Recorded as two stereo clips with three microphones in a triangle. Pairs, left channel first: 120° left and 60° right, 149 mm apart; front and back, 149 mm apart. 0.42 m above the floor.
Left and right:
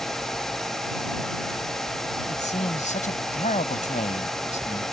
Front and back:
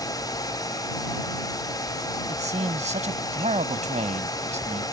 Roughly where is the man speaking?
Behind left.